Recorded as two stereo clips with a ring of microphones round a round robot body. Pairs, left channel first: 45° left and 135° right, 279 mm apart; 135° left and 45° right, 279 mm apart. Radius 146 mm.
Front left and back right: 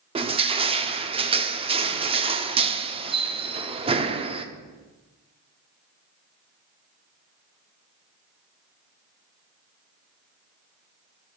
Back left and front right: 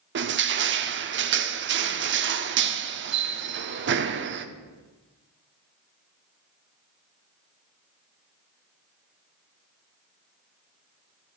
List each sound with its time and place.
0.1 s crushing: 70° right, 0.8 m